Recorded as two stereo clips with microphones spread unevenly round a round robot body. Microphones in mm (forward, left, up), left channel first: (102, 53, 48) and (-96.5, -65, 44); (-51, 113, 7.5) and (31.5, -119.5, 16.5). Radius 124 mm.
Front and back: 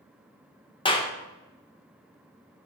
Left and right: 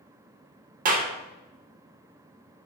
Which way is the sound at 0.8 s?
30° right.